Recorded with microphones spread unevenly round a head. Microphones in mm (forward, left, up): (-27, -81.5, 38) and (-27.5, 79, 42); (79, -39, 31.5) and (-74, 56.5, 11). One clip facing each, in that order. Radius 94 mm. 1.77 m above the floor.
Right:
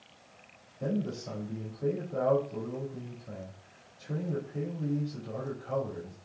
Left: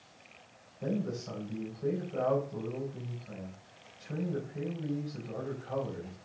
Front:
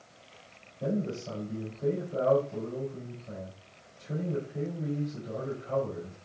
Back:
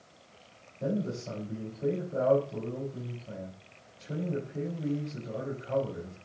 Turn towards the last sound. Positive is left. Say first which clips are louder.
# right 1 dB, even
turn(degrees=-125)